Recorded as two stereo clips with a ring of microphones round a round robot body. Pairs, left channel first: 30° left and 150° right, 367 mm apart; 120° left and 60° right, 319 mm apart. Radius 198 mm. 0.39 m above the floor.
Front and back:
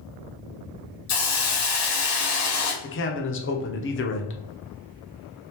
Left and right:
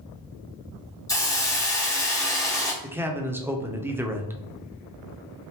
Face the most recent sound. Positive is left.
turn(degrees=20)